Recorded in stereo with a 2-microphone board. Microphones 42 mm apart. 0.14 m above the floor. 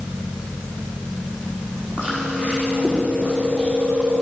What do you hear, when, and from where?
2.0 s chewing: 35° right (ahead or behind), 6 m